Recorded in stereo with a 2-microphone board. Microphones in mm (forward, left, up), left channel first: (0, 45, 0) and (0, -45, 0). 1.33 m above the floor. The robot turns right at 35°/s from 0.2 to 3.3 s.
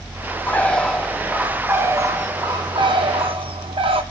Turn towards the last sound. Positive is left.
turn(degrees=-100)